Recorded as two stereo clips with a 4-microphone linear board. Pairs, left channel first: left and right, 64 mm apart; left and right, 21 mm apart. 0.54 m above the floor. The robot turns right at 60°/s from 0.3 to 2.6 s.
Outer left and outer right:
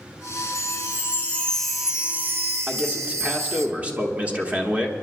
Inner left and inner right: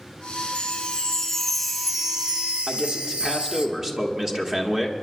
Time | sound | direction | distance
0.6 | a chime | 110° left | 0.9 m
2.7 | a man speaking | 25° right (ahead or behind) | 1.3 m